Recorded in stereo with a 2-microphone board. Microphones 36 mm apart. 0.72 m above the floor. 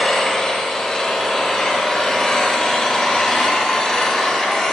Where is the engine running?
20° left (ahead or behind), 1.6 m.